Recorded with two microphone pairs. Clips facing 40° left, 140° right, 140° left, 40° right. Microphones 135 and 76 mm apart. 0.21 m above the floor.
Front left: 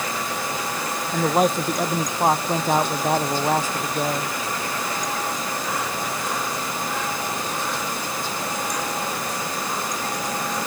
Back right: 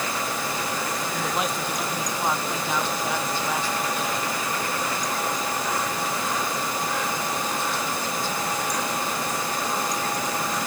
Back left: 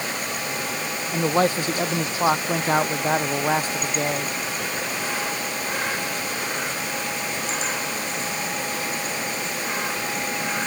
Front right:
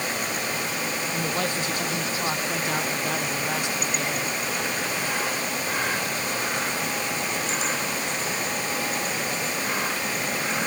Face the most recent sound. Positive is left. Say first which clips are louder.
# front left 11 dB, back left 10 dB
turn(degrees=85)